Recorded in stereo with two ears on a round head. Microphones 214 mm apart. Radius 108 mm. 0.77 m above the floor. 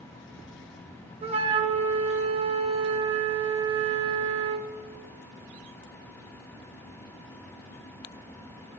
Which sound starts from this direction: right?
A flute, at 1.2 s.